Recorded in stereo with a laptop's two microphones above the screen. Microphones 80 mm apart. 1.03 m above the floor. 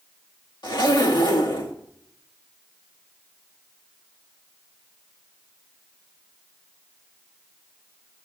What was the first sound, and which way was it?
A zipper, 70° left (ahead or behind).